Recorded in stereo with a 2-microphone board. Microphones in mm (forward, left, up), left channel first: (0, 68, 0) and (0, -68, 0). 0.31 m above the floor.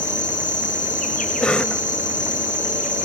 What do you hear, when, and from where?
0.0 s an insect: 70° left (ahead or behind), 5 m
1.4 s a cough: 5° left (ahead or behind), 1.1 m